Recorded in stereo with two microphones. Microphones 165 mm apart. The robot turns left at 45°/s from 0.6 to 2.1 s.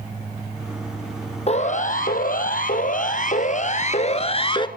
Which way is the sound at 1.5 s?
45° left (ahead or behind).